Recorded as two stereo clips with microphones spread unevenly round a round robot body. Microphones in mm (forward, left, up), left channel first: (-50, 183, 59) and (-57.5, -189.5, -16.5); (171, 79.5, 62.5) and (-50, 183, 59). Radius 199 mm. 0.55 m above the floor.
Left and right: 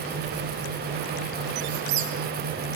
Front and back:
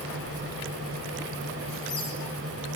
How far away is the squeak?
About 8 m.